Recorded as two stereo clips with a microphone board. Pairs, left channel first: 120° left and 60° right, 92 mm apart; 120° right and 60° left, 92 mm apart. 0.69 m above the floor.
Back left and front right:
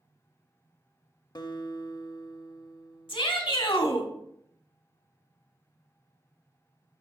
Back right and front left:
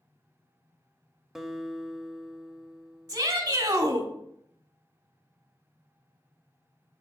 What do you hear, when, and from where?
1.4 s a guitar: 145° left, 0.5 m
3.1 s a shout: 105° left, 1.4 m